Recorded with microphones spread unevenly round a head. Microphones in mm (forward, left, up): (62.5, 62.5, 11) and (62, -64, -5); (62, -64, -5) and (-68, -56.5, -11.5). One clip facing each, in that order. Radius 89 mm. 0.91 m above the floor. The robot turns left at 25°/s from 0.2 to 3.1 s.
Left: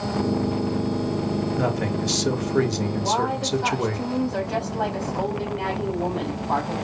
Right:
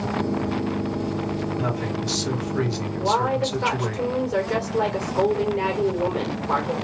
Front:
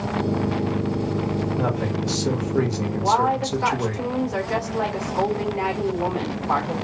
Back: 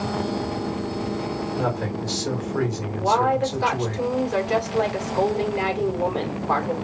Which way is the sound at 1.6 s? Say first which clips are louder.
Left 2 dB, front 1 dB; 90° left.